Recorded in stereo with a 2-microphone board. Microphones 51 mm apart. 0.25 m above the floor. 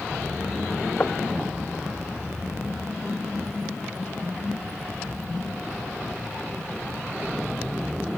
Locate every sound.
1.0 s knocking: 45° left (ahead or behind)